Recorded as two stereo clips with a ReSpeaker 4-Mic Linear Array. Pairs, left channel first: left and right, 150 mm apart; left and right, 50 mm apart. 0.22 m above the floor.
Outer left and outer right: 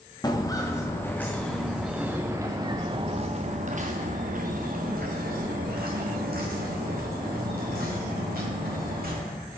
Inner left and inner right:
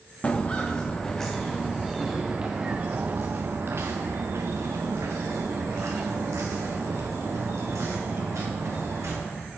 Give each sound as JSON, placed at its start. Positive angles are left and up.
{"t": 0.2, "sound": "footsteps", "side_deg": 25, "distance_m": 1.9}